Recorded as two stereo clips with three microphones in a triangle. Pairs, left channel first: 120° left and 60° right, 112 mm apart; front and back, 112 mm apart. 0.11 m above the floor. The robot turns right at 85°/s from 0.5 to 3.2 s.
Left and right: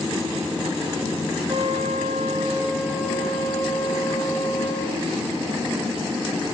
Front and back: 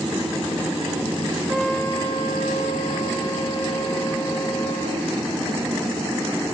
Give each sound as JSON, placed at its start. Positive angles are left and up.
{"t": 1.5, "sound": "a trumpet", "azimuth_deg": -100, "distance_m": 7.5}